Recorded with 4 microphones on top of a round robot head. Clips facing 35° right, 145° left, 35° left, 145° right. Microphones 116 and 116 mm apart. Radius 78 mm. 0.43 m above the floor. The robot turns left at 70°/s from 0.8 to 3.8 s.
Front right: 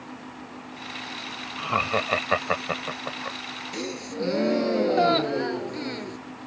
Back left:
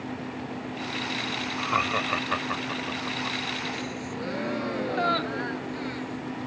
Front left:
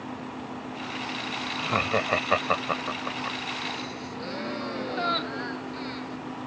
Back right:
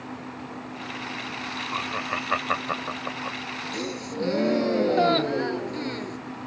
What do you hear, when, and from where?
1.6 s laughter: 40° left; by 3.4 s 85° right
3.7 s a gasp: 90° right; by 6.2 s 95° right